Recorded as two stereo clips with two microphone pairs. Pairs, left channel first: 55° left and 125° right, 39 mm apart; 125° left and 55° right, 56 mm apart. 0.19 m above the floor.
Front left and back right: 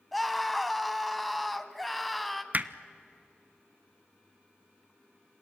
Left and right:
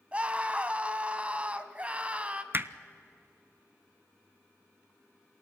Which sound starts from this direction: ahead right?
A scream, at 0.1 s.